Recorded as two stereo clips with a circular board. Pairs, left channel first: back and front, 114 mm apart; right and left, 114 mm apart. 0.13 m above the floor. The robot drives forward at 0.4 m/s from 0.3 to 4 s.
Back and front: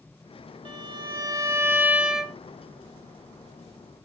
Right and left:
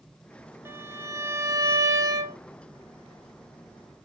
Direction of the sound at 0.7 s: 30° left.